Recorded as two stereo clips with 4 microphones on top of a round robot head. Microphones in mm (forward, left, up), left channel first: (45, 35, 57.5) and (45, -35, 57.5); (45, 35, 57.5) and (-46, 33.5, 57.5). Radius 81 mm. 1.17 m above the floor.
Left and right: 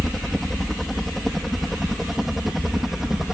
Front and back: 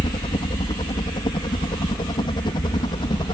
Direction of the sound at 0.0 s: 5° left.